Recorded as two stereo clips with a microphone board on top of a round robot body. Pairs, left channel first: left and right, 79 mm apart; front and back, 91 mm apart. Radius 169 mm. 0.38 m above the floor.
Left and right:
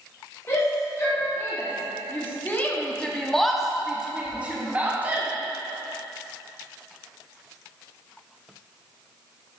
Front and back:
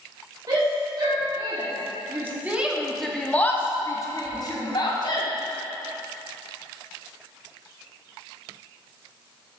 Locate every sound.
0.5 s a shout: 145° left, 2.5 m; by 5.3 s 25° right, 2 m